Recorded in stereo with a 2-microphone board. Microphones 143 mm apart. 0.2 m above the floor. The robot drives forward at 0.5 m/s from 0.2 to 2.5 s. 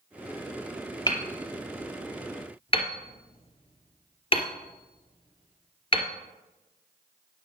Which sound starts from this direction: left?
Hammering, at 1.1 s.